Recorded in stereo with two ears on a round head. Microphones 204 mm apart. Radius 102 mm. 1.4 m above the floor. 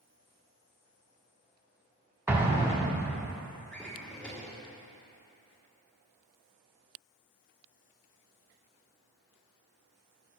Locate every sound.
2.3 s an explosion: 10° right (ahead or behind), 1.0 m
3.7 s a drawer: 5° left (ahead or behind), 1.4 m